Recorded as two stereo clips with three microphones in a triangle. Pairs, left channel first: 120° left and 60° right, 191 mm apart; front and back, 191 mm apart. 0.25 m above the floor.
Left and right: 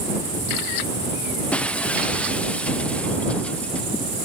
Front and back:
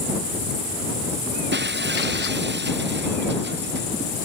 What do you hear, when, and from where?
1.5 s breaking glass: 155° right